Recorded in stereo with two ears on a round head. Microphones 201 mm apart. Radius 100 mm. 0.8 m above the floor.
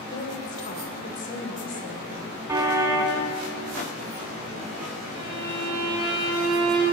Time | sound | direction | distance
0.1 | a woman speaking | 40° left (ahead or behind) | 3.5 m
2.5 | a car horn | 15° right (ahead or behind) | 3 m
5.1 | a violin | 20° right (ahead or behind) | 7 m